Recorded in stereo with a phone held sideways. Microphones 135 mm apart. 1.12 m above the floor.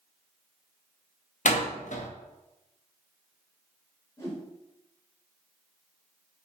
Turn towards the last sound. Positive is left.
turn(degrees=25)  # may be behind; listen again after turning